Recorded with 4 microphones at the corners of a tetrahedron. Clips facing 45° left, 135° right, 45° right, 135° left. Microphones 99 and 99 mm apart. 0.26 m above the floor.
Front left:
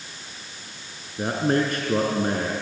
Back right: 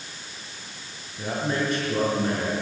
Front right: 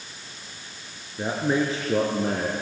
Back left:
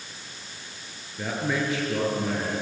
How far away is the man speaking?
About 3.5 m.